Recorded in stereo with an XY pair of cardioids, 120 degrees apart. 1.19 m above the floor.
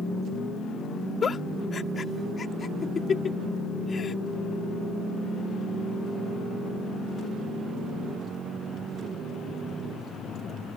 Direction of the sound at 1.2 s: 35° left.